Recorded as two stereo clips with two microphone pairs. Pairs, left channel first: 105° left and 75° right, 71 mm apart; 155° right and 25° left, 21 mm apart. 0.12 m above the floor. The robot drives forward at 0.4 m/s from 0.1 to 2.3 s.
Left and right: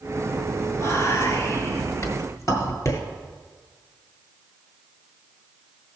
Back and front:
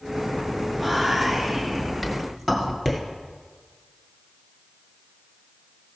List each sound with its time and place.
0.8 s whispering: 115° left, 2.0 m; by 3.0 s 135° left, 2 m